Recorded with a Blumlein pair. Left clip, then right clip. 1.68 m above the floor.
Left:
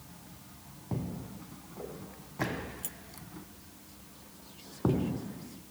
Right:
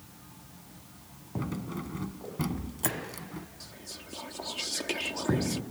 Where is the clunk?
No clunk in this recording.